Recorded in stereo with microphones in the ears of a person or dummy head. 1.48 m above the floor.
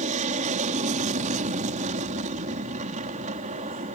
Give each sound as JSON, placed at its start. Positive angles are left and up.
{"t": 0.0, "sound": "an aircraft", "side_deg": -40}